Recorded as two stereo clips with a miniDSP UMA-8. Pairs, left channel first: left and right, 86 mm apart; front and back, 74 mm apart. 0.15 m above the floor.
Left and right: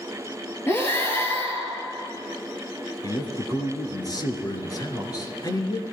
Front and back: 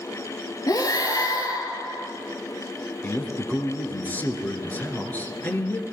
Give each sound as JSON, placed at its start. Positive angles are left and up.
{"t": 0.7, "sound": "breathing", "azimuth_deg": 30, "distance_m": 3.0}
{"t": 3.0, "sound": "a man speaking", "azimuth_deg": 60, "distance_m": 3.0}